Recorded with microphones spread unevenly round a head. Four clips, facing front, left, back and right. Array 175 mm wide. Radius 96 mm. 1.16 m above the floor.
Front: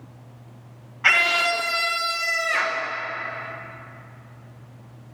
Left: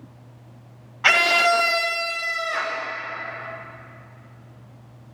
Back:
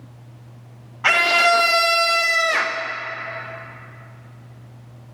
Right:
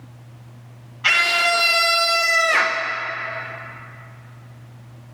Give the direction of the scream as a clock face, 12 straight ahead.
8 o'clock.